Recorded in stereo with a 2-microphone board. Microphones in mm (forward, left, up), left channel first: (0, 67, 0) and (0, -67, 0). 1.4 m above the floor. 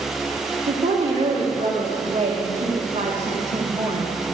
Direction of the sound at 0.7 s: 65° right (ahead or behind).